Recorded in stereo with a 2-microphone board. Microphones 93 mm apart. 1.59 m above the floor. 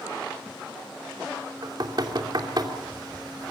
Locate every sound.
1.6 s knocking: 50° right (ahead or behind), 2.5 m